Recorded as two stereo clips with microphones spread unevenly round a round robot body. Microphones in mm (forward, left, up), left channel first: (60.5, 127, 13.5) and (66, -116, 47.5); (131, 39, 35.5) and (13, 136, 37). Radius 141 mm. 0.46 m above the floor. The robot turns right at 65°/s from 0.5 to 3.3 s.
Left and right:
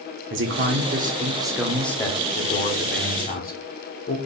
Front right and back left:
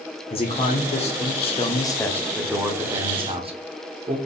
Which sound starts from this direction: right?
A man speaking, at 0.3 s.